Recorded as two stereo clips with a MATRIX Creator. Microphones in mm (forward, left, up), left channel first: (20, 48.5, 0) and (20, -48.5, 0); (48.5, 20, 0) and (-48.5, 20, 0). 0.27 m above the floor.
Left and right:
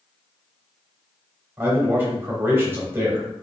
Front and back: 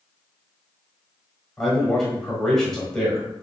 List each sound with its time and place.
1.6 s a man speaking: 80° right, 1.0 m